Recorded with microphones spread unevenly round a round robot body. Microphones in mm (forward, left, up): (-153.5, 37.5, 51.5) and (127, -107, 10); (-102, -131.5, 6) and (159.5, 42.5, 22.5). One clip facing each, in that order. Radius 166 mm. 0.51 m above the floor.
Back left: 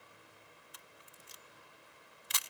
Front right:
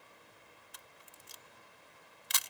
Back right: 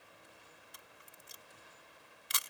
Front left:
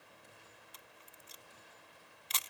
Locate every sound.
0.7 s a camera shutter: 70° right